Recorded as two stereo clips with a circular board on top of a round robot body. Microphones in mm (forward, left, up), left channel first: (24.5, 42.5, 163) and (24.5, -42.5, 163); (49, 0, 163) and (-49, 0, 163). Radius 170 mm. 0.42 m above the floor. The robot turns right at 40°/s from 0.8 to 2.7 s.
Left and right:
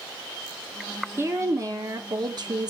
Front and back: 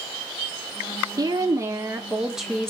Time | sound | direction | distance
1.2 | a woman speaking | 145° right | 1.9 m